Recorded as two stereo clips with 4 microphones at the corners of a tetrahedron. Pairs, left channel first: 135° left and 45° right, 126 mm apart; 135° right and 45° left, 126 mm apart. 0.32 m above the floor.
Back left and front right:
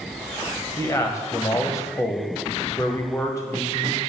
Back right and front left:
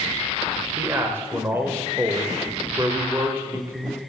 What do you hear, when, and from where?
0.8 s a man speaking: 100° left, 1.5 m